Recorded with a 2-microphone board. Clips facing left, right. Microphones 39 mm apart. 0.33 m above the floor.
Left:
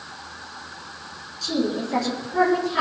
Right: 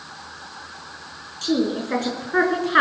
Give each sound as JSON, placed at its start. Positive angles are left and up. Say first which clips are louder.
{"t": 1.4, "sound": "a woman speaking", "louder": "right 3 dB", "side_deg": -55, "distance_m": 5.0}